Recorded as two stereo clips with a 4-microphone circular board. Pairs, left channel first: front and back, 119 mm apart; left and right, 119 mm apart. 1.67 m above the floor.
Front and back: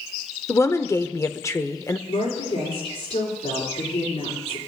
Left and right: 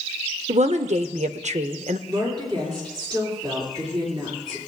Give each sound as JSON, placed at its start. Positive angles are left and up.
{"t": 0.5, "sound": "a woman speaking", "azimuth_deg": -65, "distance_m": 0.7}
{"t": 2.1, "sound": "a woman speaking", "azimuth_deg": -40, "distance_m": 4.5}